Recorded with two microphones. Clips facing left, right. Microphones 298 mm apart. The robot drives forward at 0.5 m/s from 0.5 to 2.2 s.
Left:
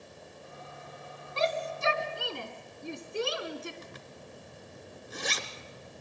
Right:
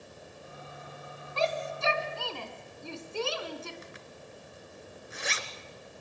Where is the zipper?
45° left (ahead or behind), 1.6 m.